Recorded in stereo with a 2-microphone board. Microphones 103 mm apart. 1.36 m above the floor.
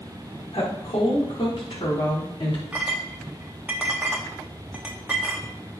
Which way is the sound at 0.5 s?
75° left (ahead or behind).